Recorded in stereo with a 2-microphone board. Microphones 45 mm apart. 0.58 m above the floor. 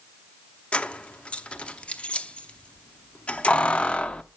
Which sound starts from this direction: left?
Keys jangling, at 0.7 s.